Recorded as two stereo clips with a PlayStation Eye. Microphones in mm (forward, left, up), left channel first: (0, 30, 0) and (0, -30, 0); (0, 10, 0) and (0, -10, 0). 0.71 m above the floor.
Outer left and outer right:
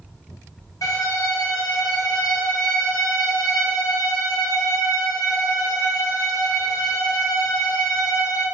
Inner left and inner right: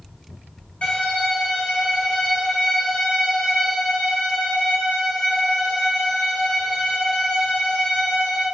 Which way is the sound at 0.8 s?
70° left (ahead or behind).